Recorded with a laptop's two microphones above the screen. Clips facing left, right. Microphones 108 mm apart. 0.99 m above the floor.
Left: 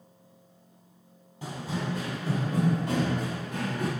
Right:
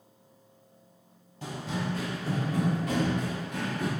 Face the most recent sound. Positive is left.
turn(degrees=40)  # may be behind; listen again after turning